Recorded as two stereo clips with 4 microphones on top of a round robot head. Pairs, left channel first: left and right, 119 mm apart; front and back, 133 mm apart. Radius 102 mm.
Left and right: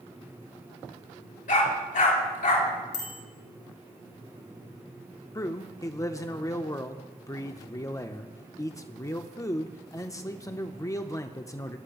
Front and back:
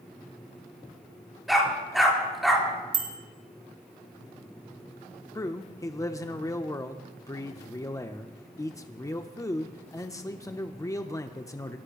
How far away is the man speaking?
About 0.9 m.